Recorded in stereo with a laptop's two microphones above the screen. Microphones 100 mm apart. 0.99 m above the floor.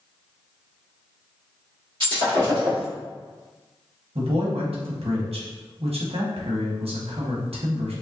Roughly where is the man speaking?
Right.